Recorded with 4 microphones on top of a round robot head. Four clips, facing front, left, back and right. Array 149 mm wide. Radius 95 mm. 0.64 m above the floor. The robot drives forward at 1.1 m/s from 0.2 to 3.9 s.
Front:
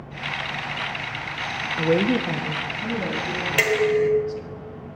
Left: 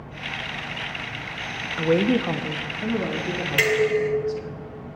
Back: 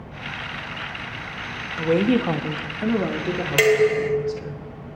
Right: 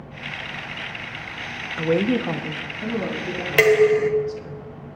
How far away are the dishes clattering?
About 1.2 m.